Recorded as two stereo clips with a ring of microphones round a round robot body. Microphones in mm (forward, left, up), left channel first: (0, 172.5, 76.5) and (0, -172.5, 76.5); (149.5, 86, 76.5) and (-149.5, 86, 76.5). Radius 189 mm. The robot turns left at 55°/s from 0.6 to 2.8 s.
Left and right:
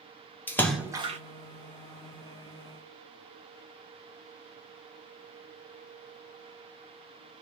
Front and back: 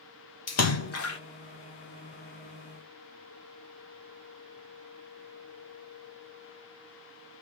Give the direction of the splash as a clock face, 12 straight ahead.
12 o'clock.